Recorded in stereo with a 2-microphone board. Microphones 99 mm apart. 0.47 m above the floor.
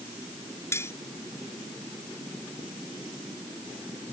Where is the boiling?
I don't hear boiling.